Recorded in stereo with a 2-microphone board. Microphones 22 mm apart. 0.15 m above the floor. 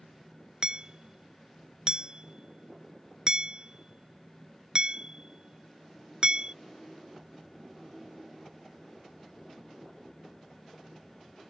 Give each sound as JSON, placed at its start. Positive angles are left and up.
{"t": 0.6, "sound": "hammering", "side_deg": -40}